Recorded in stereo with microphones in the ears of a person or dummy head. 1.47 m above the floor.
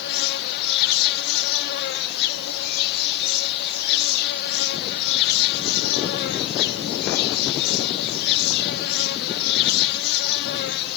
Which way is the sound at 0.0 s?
55° left (ahead or behind).